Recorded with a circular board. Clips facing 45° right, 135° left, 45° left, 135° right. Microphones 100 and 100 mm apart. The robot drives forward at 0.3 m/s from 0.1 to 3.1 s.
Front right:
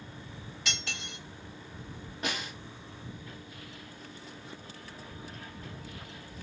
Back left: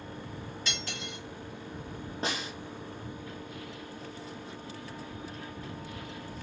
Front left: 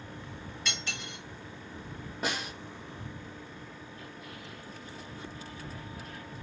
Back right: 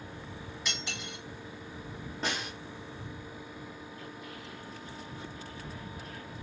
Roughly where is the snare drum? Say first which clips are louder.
Back left 1 dB, front left 1 dB; behind left.